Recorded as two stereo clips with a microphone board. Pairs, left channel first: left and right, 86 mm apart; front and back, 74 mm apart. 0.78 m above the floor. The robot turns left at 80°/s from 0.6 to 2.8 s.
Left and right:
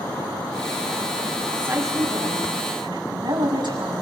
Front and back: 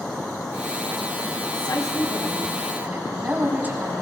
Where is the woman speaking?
15° right, 7 m; by 4.0 s 115° right, 7 m.